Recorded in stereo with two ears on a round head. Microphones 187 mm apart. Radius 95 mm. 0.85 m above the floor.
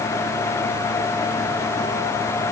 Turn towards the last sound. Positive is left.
No sound to turn to.